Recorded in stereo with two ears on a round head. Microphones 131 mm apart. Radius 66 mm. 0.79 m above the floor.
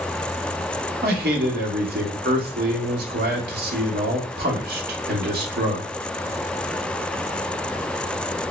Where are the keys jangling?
I don't hear keys jangling.